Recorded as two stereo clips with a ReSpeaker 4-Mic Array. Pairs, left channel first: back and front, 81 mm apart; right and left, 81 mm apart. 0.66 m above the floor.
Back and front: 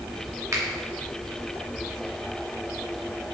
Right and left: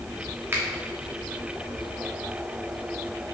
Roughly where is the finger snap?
Ahead left.